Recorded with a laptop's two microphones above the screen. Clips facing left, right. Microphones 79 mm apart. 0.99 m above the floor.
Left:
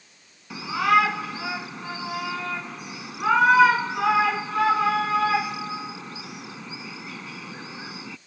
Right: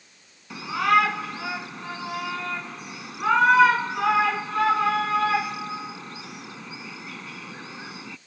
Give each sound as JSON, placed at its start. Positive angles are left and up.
{"t": 0.5, "sound": "a shout", "side_deg": 0}